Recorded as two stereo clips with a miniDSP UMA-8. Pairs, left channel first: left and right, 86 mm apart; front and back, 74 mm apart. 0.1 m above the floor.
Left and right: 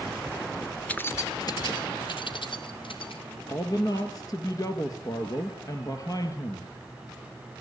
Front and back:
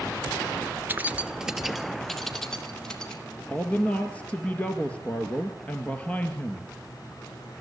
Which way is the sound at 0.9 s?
150° left.